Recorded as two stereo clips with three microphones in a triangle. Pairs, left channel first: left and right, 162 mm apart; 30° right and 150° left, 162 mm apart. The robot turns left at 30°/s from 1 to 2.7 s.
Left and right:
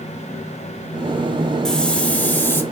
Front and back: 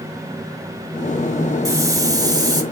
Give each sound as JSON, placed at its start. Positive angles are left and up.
{"t": 1.6, "sound": "a hiss", "azimuth_deg": 170, "distance_m": 1.1}